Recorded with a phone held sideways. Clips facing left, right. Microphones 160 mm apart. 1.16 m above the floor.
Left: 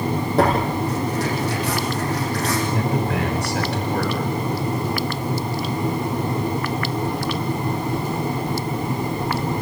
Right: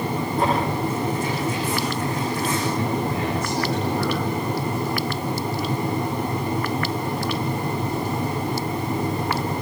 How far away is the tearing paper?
About 8 m.